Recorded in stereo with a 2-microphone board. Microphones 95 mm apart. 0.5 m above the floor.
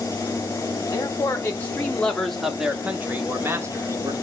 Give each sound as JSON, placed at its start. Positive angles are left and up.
{"t": 0.9, "sound": "a man speaking", "side_deg": 35, "distance_m": 1.4}